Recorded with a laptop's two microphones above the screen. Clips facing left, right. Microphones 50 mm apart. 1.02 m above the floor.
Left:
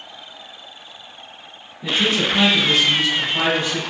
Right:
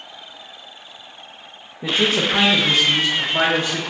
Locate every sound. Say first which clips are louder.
1.8 s a man speaking: right 1 dB; 60° right (ahead or behind), 0.8 m; by 3.8 s 35° right (ahead or behind), 1.2 m